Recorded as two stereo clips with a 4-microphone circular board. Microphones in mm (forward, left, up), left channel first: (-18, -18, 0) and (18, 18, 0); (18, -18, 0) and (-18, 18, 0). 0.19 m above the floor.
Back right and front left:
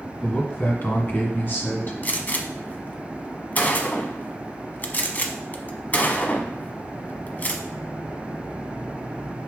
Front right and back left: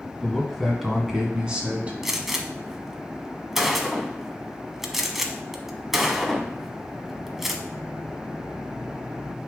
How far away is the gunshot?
About 0.9 m.